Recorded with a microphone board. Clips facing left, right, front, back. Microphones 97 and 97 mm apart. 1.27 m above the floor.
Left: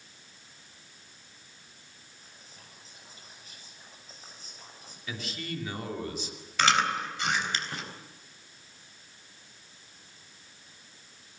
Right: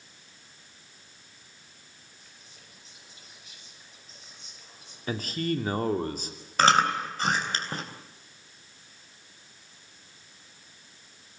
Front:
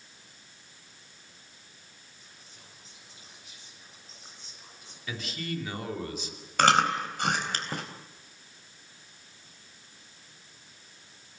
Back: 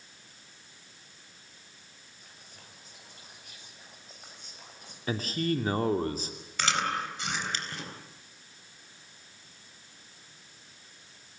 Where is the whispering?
140° left, 9 m.